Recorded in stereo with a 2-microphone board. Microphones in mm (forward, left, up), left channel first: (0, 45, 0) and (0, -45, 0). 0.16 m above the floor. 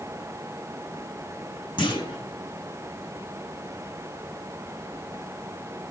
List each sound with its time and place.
1.8 s a clunk: 65° left (ahead or behind), 5 m